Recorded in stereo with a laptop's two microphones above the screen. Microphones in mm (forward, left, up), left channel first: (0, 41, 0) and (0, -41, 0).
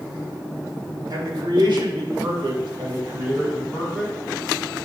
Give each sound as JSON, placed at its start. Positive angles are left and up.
{"t": 1.1, "sound": "a man speaking", "side_deg": -55, "distance_m": 3.0}